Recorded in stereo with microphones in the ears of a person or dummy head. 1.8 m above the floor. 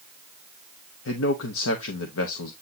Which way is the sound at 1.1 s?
70° left (ahead or behind).